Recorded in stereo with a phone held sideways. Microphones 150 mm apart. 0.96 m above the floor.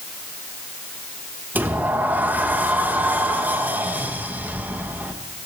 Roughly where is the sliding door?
Centre.